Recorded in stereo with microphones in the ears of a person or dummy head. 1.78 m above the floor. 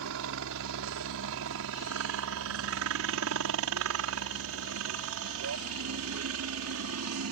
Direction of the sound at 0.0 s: 60° right (ahead or behind).